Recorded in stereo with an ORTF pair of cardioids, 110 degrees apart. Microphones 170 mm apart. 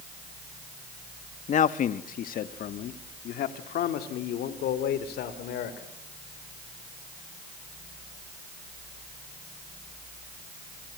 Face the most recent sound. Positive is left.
turn(degrees=75)